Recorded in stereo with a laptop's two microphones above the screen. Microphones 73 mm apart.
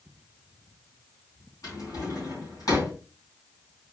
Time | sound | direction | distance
1.6 | a drawer | 55° left (ahead or behind) | 3 m